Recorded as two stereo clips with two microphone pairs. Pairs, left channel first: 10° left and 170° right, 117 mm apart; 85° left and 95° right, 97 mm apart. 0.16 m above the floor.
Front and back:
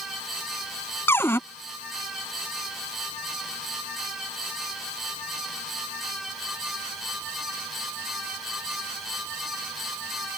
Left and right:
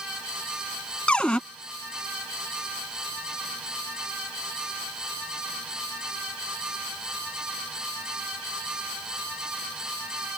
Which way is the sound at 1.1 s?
20° left.